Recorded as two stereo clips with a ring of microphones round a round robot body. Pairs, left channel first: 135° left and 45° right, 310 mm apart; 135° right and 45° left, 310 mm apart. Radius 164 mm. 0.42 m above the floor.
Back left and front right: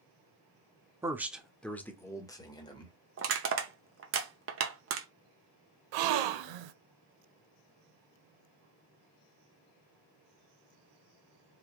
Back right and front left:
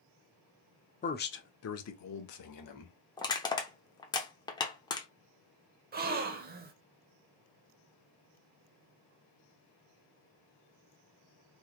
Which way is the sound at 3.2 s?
65° right.